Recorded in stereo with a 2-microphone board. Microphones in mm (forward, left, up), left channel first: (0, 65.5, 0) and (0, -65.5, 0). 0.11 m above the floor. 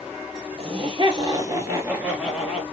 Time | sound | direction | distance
0.6 | laughter | 45° right (ahead or behind) | 2 m